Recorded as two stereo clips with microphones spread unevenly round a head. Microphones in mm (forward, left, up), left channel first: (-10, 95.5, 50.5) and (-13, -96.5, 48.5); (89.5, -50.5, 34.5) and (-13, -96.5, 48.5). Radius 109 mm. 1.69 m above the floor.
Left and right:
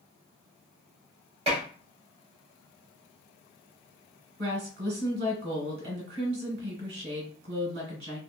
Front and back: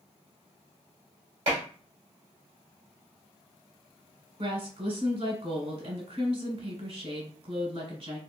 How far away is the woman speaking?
About 1.5 m.